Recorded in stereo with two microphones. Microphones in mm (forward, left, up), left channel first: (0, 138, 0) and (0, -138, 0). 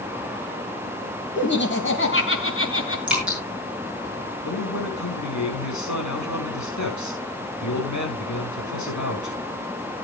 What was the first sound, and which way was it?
Laughter, 40° left (ahead or behind).